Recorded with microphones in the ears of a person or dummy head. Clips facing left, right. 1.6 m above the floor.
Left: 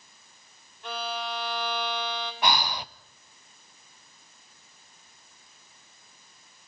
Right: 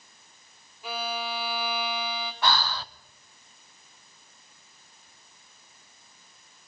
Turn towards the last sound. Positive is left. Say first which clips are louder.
# even
turn(degrees=15)  # may be behind; listen again after turning